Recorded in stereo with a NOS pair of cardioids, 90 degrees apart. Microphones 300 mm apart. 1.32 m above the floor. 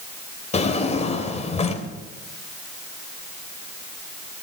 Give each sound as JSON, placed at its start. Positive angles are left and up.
{"t": 0.5, "sound": "a drawer", "azimuth_deg": 20, "distance_m": 3.0}